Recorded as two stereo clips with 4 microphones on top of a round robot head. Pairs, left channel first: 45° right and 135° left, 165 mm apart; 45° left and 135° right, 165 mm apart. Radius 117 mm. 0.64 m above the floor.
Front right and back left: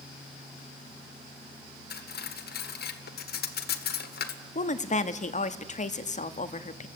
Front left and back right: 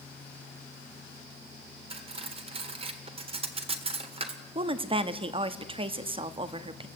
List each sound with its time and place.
1.9 s cutlery clinking: 75° right, 1.6 m
4.5 s a woman speaking: 80° right, 1.1 m